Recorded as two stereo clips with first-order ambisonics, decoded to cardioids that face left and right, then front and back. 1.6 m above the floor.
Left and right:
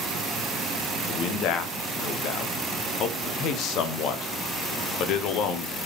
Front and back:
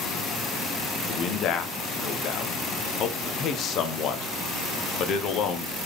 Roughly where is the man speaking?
Ahead left.